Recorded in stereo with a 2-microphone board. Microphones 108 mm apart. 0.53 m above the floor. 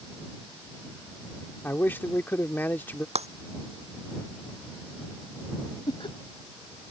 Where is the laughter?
50° left (ahead or behind).